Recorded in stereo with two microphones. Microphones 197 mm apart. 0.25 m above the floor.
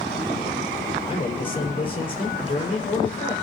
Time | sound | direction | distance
1.1 | a man speaking | 25° left (ahead or behind) | 6.5 m